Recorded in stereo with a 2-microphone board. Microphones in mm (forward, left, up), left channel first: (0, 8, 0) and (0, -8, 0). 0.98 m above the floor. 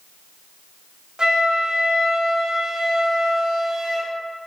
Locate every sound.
1.2 s a flute: 65° right (ahead or behind), 1.0 m